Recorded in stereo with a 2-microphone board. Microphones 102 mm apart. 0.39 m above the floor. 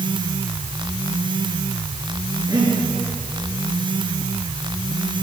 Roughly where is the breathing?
Right.